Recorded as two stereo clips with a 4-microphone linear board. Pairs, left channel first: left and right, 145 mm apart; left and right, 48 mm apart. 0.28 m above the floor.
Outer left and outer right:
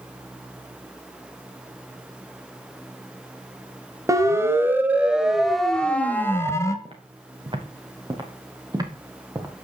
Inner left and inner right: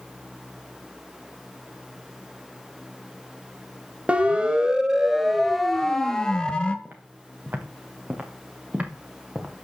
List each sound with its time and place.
4.1 s a siren: 25° right (ahead or behind), 2 m; by 6.8 s 20° left (ahead or behind), 1.9 m
6.8 s footsteps: 40° right (ahead or behind), 5 m; by 9.5 s 25° right (ahead or behind), 4.5 m